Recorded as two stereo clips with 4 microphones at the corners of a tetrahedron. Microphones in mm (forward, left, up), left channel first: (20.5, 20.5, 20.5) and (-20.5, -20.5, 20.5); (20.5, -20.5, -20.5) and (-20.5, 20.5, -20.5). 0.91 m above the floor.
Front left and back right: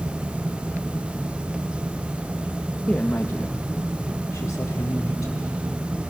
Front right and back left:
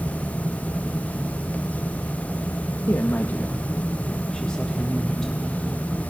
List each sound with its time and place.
2.9 s a woman speaking: 25° right, 0.7 m; by 5.6 s 40° left, 2.5 m